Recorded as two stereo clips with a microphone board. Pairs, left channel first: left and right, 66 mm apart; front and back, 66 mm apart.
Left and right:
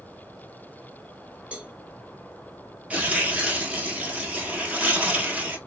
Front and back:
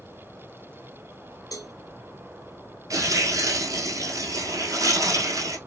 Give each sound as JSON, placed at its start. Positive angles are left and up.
{"t": 1.5, "sound": "a cowbell", "azimuth_deg": -20, "distance_m": 0.6}
{"t": 2.9, "sound": "tearing paper", "azimuth_deg": -155, "distance_m": 0.9}